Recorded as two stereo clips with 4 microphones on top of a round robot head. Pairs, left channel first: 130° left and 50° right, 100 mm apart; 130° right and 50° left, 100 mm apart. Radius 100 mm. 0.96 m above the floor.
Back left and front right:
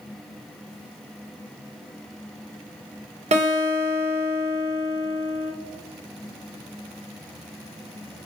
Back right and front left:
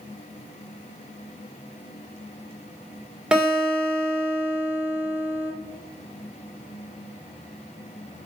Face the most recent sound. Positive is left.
turn(degrees=-35)